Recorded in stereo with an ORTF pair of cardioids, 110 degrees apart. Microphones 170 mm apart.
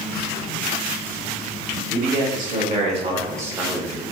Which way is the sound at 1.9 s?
60° right.